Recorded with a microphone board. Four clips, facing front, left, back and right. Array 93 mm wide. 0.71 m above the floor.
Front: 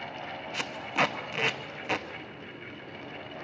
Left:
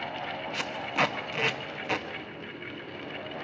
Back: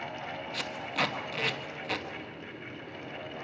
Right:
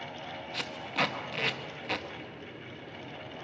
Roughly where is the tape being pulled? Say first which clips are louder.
Left 3 dB, front 4 dB; ahead left.